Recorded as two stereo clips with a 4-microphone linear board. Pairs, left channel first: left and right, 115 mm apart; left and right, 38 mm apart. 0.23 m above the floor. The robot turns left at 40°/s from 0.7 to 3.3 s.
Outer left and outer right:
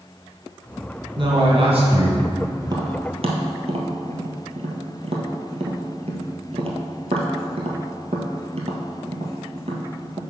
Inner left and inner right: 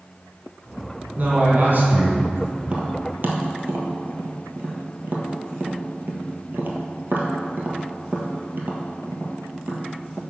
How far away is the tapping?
About 1.2 m.